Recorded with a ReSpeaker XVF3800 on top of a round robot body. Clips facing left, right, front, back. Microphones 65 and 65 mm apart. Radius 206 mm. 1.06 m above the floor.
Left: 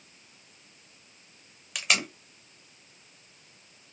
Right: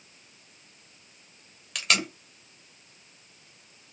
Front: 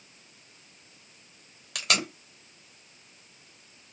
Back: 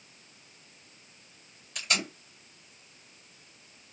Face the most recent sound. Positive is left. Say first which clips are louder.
# right 1 dB, front 3 dB
turn(degrees=5)